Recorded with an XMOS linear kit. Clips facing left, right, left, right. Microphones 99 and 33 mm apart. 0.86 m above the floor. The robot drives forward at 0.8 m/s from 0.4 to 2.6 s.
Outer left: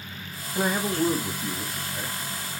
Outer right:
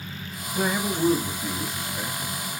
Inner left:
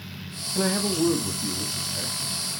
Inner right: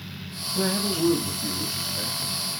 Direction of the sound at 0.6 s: 15° left (ahead or behind).